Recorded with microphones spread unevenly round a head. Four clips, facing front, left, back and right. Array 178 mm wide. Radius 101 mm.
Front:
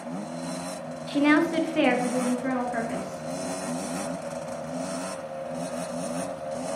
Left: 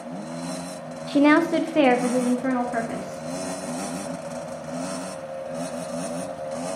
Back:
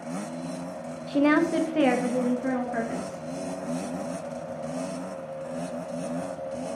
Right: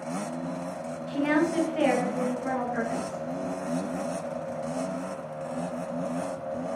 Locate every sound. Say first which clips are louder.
1.1 s a woman speaking: left 8 dB, even; 90° left, 0.7 m; by 3.2 s 115° left, 2.5 m